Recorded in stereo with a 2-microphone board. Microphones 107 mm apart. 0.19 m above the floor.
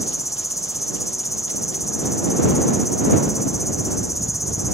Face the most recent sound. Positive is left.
turn(degrees=30)  # may be behind; listen again after turning